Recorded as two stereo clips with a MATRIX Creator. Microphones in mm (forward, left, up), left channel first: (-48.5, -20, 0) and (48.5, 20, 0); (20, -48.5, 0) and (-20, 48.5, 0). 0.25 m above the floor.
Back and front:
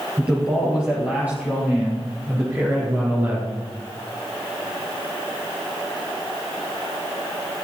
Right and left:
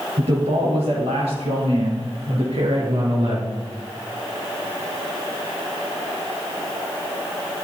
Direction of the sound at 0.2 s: 100° left.